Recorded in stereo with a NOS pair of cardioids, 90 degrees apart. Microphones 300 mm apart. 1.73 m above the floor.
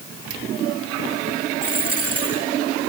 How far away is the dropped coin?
About 4.5 m.